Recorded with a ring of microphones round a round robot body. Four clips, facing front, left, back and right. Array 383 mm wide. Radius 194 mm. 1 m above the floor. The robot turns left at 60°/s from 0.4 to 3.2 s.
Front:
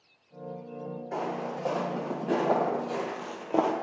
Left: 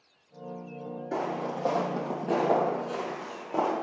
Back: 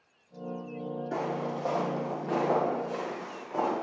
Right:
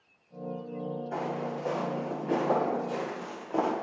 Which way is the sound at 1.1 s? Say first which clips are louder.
Left 4 dB, even; 125° left.